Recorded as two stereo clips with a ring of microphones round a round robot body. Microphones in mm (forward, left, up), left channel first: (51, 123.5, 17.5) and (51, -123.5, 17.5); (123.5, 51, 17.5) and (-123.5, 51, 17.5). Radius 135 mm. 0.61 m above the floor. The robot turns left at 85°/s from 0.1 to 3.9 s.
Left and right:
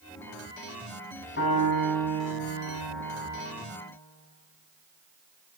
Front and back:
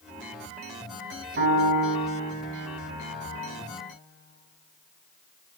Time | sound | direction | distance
1.4 | a piano | 145° left | 5.5 m